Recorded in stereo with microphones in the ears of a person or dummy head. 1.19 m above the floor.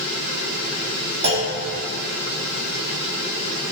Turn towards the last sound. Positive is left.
turn(degrees=-60)  # may be behind; listen again after turning